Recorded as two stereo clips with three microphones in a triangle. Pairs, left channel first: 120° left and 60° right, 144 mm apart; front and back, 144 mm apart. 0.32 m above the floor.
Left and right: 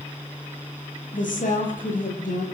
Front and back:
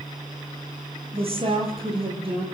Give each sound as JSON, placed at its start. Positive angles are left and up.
{"t": 1.1, "sound": "a woman speaking", "azimuth_deg": 135, "distance_m": 9.5}